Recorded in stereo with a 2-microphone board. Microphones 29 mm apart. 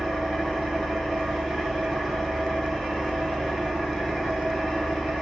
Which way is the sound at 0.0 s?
Centre (ahead or behind).